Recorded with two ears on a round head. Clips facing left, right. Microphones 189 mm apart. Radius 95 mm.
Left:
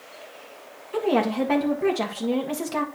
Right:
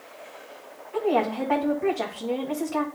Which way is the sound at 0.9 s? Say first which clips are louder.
Left 2 dB; 50° left (ahead or behind).